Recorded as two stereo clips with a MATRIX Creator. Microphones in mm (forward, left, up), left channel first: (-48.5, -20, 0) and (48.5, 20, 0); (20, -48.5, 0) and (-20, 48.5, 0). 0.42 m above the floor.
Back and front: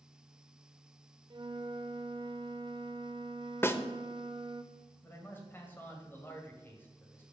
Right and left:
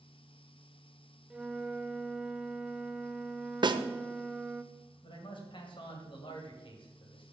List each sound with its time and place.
1.3 s a flute: 35° left, 0.5 m
3.6 s a snare drum: 140° left, 0.6 m
5.0 s a man speaking: 90° right, 2 m